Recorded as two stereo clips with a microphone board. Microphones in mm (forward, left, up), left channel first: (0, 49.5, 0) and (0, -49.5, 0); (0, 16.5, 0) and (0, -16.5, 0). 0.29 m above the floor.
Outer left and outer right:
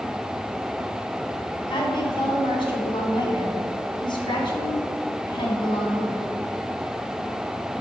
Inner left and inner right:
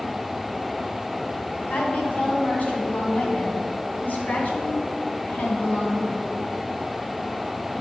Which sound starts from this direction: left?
A woman speaking, at 1.7 s.